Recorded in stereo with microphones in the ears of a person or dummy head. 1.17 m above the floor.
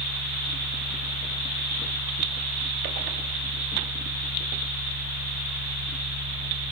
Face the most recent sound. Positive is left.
turn(degrees=-75)  # may be behind; listen again after turning